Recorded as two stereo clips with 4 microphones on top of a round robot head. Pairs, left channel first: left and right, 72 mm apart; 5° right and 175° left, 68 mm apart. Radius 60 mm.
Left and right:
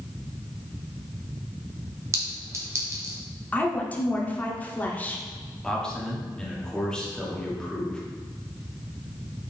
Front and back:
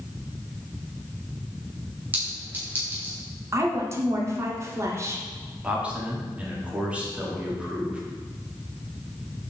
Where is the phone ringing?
I don't hear a phone ringing.